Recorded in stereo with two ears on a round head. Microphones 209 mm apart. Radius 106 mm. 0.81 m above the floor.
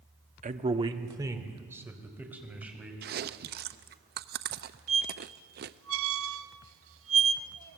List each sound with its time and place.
0.4 s a man speaking: 35° right (ahead or behind), 1.1 m; by 2.9 s 5° right (ahead or behind), 4.5 m
3.0 s chewing: 40° right (ahead or behind), 0.6 m
4.9 s a squeak: 60° right (ahead or behind), 0.7 m